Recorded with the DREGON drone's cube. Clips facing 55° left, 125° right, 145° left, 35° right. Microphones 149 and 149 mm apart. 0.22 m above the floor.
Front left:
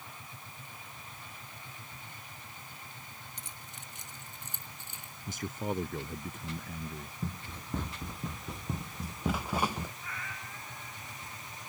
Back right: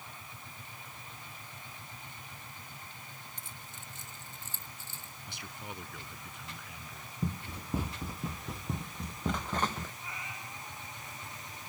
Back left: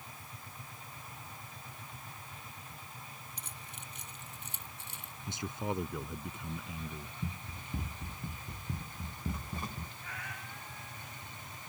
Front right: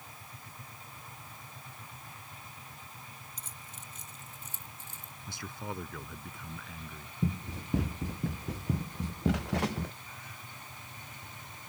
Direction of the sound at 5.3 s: 80° left.